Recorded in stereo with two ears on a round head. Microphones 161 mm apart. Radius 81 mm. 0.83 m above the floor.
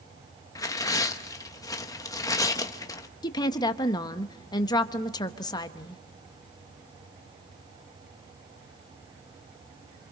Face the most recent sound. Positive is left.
turn(degrees=25)  # may be behind; listen again after turning